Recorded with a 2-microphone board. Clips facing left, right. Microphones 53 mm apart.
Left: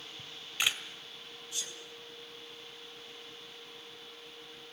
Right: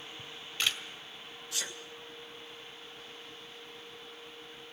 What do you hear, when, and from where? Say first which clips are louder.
0.2 s a camera shutter: left 1 dB; 15° left (ahead or behind), 1.8 m
1.5 s a sneeze: right 5 dB; 80° right, 1.8 m